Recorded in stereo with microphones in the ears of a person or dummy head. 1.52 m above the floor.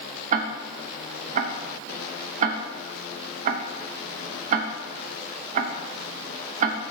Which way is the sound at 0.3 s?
40° right (ahead or behind).